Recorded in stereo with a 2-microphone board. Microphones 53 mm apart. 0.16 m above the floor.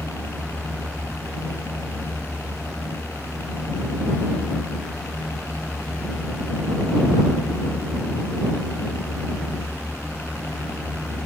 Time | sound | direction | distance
0.0 | a helicopter | 60° left (ahead or behind) | ?